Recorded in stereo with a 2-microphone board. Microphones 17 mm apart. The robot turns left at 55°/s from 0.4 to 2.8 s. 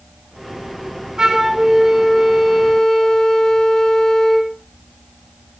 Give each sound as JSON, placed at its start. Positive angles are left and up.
{"t": 1.2, "sound": "a flute", "azimuth_deg": -145, "distance_m": 5.0}